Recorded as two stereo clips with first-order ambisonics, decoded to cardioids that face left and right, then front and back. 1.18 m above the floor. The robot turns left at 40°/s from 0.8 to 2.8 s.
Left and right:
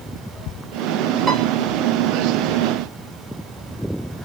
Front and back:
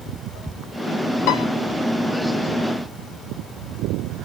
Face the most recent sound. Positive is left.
turn(degrees=-80)